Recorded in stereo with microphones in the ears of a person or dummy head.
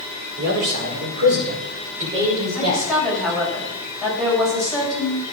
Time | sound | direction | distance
0.4 | a man speaking | 65° right (ahead or behind) | 4.5 m
2.5 | a woman speaking | 5° left (ahead or behind) | 7 m